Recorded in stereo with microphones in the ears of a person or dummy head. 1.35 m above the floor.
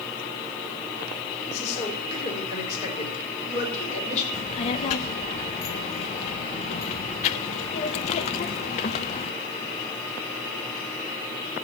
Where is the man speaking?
35° left (ahead or behind), 4.5 m.